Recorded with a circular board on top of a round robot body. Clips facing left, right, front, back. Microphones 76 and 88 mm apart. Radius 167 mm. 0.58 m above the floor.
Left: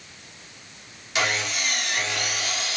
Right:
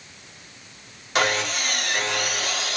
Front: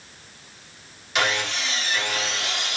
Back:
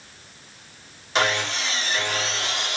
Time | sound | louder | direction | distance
1.1 | sawing | right 3 dB, back 2 dB | 130° right | 3.5 m